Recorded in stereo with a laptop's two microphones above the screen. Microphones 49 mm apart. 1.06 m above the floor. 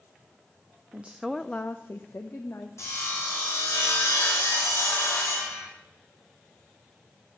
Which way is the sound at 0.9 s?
30° right (ahead or behind).